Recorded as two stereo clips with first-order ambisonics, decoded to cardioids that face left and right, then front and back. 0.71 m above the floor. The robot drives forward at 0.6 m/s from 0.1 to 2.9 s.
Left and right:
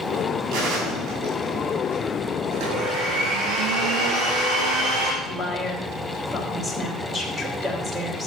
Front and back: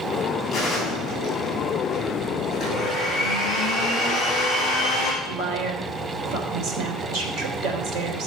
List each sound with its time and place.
0.5 s a gunshot: 75° right, 6 m; by 2.0 s 80° right, 6 m
2.5 s a blender: 95° right, 6.5 m; by 5.1 s 100° right, 6.5 m
5.2 s a woman speaking: 165° right, 3 m